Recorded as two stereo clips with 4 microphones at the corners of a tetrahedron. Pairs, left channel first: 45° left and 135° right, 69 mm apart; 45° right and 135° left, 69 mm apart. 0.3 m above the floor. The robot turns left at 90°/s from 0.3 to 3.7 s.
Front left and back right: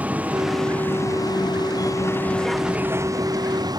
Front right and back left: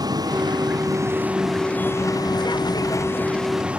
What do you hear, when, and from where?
0.0 s a vehicle: 155° left; by 3.8 s 150° right